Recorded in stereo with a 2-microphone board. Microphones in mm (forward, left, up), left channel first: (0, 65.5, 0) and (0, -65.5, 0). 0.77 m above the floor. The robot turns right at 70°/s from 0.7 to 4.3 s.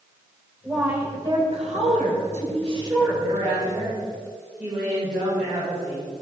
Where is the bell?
I don't hear a bell.